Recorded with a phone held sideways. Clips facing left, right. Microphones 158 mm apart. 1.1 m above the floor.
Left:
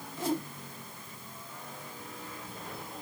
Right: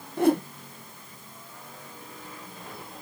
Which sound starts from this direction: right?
A whoosh, at 0.2 s.